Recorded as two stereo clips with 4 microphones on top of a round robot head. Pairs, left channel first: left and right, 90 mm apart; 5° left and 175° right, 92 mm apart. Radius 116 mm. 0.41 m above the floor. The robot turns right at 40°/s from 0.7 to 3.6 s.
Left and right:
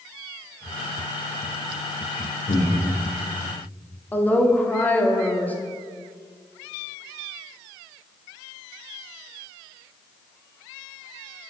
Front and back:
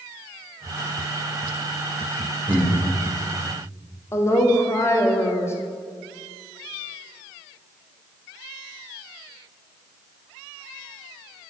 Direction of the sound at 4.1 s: 35° left.